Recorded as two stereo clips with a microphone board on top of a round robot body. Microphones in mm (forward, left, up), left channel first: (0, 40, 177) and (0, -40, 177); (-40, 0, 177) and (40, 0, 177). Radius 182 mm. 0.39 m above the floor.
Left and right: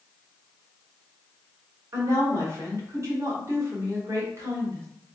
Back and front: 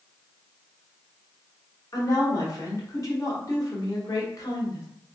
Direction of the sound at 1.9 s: 140° right.